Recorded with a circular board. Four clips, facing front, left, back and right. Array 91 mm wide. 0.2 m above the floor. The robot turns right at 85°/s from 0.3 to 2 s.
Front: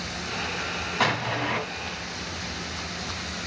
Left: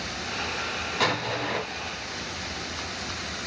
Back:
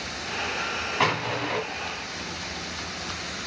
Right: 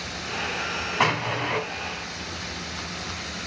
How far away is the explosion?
About 1.8 m.